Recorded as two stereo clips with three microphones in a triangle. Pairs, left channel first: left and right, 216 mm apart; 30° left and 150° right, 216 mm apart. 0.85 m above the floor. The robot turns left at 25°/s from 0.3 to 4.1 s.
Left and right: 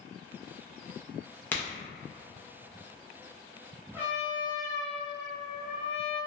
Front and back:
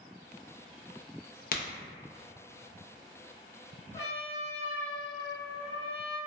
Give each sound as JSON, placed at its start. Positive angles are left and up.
{"t": 1.5, "sound": "a crack", "azimuth_deg": 15, "distance_m": 0.5}
{"t": 3.9, "sound": "a trumpet", "azimuth_deg": -30, "distance_m": 1.0}